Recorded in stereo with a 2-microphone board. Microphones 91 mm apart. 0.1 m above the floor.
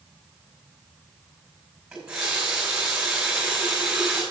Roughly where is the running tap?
Centre.